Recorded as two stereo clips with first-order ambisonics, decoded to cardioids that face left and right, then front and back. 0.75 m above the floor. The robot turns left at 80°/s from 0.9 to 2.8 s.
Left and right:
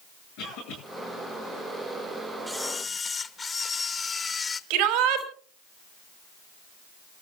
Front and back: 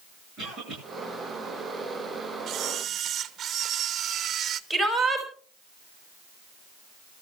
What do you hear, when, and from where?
0.4 s a cough: 120° left, 9.5 m
2.5 s a camera shutter: 175° left, 0.9 m; by 4.6 s 150° left, 0.9 m
4.7 s a shout: 85° right, 4.5 m